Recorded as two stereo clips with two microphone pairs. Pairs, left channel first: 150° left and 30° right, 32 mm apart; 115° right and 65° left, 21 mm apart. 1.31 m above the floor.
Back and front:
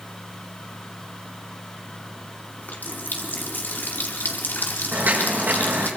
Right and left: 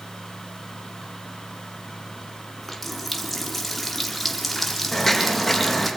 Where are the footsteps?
35° right, 4.5 m.